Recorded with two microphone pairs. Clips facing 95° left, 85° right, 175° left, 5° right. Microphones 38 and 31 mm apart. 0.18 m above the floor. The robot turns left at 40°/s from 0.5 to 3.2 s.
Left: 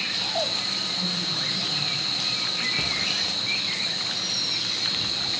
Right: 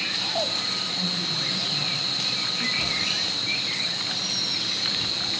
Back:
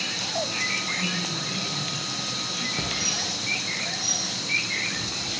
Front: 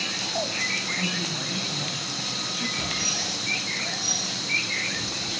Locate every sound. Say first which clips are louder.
1.0 s a woman speaking: even, even; straight ahead, 7 m; by 2.7 s 70° right, 7 m
2.8 s a hiss: even, even; 155° left, 8 m; by 3.3 s 135° left, 8 m